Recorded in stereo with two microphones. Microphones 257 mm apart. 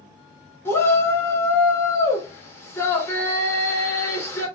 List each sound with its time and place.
0.7 s a shout: 10° left (ahead or behind), 1.8 m